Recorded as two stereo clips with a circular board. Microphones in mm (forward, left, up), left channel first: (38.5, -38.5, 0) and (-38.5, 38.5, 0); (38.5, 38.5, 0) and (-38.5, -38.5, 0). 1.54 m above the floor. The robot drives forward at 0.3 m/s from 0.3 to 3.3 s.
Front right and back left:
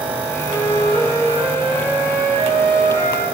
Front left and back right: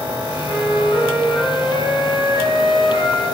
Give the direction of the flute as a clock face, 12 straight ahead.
7 o'clock.